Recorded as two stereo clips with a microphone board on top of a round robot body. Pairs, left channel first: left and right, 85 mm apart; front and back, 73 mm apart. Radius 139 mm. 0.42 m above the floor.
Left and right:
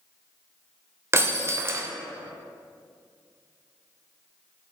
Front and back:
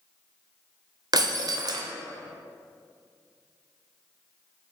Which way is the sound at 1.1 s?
150° right.